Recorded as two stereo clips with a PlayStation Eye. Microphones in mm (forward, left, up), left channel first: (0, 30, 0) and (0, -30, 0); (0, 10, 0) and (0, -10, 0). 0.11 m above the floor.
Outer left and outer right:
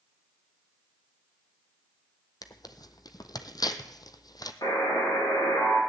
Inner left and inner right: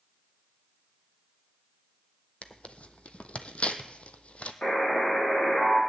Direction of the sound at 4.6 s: 75° left (ahead or behind).